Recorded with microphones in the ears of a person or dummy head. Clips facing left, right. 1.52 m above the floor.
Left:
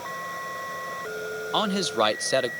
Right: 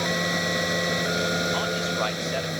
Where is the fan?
80° right.